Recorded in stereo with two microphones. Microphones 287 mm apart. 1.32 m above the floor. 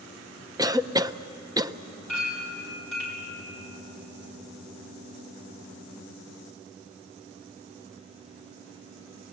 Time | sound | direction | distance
0.6 | a cough | 15° right (ahead or behind) | 0.5 m
2.1 | a clink | 70° right (ahead or behind) | 6 m